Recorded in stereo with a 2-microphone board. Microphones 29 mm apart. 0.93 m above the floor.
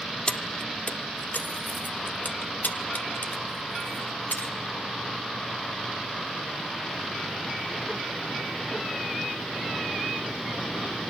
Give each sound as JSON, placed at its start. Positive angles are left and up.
{"t": 0.3, "sound": "keys jangling", "side_deg": 30, "distance_m": 1.0}